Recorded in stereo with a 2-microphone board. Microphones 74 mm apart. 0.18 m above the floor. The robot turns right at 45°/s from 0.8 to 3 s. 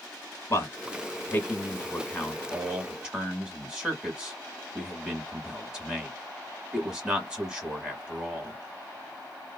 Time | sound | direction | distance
0.5 | a man speaking | 35° left (ahead or behind) | 1.3 m